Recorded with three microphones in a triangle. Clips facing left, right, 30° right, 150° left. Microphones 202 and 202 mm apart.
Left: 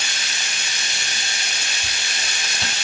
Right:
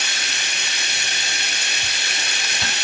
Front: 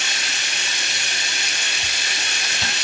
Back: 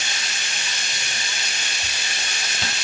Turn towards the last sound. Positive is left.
turn(degrees=-55)